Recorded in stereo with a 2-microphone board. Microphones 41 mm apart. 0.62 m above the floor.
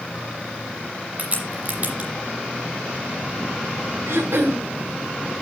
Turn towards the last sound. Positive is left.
turn(degrees=-75)  # may be behind; listen again after turning